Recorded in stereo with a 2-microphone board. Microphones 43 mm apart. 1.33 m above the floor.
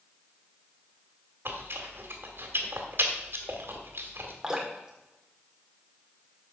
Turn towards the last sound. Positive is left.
turn(degrees=-15)  # may be behind; listen again after turning